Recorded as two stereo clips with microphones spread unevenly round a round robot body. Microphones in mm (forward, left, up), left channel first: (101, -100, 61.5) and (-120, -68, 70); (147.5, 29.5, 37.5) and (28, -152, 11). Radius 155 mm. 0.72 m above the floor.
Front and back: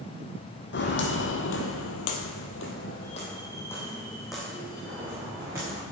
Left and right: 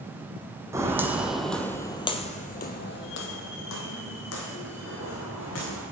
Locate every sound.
0.7 s footsteps: 45° right, 1.7 m; by 5.8 s 95° left, 3 m